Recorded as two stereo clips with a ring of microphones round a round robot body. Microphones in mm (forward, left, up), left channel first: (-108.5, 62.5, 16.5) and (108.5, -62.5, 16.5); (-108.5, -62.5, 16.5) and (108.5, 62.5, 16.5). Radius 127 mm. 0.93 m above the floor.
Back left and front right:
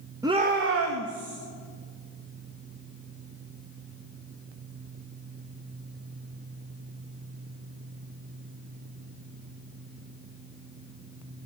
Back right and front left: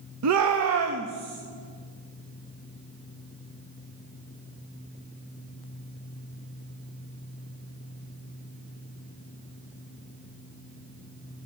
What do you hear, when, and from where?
0.2 s a shout: 45° left, 0.9 m; by 1.4 s 20° right, 1.6 m